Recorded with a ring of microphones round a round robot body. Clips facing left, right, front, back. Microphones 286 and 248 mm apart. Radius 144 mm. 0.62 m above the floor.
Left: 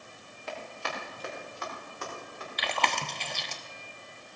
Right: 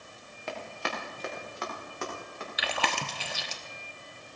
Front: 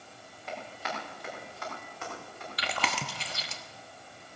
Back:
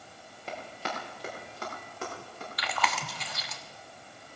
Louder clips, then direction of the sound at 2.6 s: Even, even; 10° right.